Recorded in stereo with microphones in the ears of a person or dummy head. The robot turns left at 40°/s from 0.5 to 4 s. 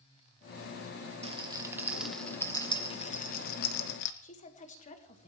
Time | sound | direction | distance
1.2 | a rattle | 30° right (ahead or behind) | 0.9 m
4.2 | a woman speaking | 40° left (ahead or behind) | 1.5 m